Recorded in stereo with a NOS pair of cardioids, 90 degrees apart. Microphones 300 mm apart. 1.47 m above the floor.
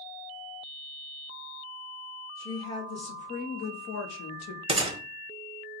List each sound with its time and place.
2.4 s a woman speaking: 10° left, 1.6 m; by 4.6 s 75° left, 0.9 m
4.7 s a gunshot: 20° right, 0.9 m